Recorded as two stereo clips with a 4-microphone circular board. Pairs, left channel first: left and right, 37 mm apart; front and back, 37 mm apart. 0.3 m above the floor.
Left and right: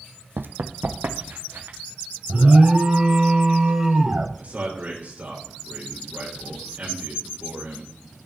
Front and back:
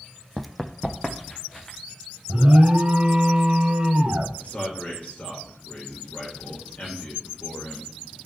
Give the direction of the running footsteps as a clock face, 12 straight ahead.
3 o'clock.